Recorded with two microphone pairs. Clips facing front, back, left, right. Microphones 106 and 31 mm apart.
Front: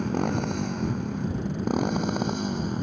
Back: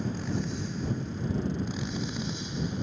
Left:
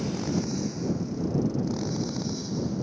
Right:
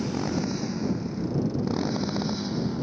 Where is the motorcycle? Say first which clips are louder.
Front 6 dB, right 1 dB; 20° right; by 2.8 s 35° right.